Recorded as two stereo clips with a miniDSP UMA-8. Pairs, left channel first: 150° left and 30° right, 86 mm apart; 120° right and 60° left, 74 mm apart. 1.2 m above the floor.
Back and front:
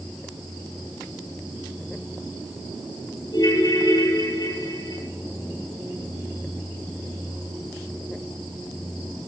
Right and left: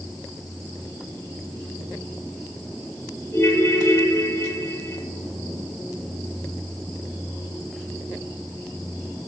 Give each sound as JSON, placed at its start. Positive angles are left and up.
{"t": 3.3, "sound": "a ringtone", "azimuth_deg": -170, "distance_m": 7.0}